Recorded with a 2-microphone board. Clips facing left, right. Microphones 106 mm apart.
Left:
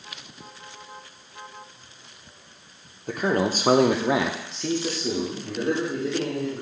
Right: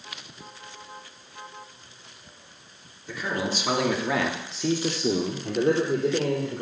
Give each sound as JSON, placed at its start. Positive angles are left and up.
{"t": 3.1, "sound": "a man speaking", "side_deg": 50, "distance_m": 1.1}